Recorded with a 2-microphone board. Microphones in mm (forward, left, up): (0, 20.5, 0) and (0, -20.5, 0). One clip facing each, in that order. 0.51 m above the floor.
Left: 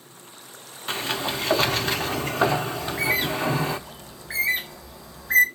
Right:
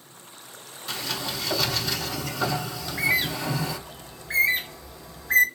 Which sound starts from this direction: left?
A sliding door, at 0.9 s.